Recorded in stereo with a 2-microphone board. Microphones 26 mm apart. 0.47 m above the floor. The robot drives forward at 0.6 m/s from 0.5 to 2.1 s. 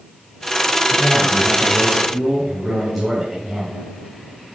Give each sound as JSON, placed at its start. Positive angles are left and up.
{"t": 0.9, "sound": "a man speaking", "side_deg": 0, "distance_m": 3.0}